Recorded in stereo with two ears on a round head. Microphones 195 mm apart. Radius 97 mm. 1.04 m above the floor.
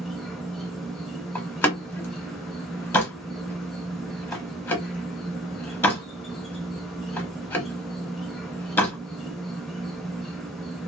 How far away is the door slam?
About 0.7 m.